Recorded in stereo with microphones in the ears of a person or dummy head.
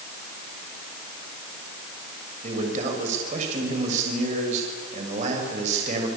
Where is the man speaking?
50° right (ahead or behind), 6.5 m.